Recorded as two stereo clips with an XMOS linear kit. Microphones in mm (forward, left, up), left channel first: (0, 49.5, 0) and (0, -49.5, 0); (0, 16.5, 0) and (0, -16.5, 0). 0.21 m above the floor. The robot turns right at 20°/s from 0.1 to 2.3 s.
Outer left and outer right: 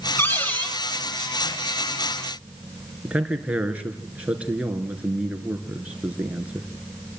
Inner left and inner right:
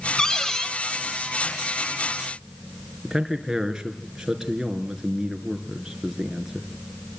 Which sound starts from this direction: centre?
A man speaking, at 3.0 s.